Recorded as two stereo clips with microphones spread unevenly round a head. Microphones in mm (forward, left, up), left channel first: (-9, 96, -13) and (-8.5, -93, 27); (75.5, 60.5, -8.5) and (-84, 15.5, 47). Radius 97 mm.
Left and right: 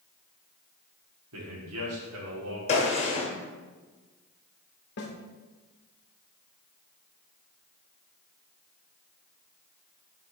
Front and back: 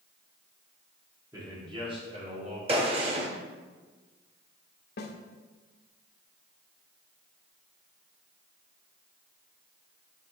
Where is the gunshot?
150° left, 1.5 m.